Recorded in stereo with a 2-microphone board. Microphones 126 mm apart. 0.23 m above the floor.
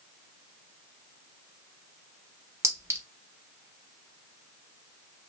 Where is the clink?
20° right (ahead or behind), 1.0 m.